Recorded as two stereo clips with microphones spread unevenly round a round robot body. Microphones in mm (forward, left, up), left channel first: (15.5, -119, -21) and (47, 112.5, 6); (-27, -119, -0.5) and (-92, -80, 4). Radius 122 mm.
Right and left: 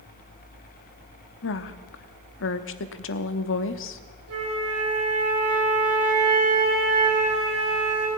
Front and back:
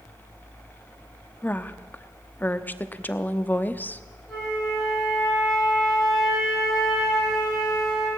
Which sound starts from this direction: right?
A woman speaking, at 1.4 s.